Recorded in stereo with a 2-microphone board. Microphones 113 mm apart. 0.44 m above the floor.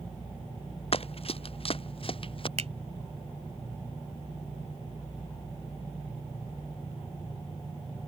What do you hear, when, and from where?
0.9 s running footsteps: 55° left (ahead or behind); by 2.5 s 50° left (ahead or behind)
2.6 s a finger snap: 65° right (ahead or behind)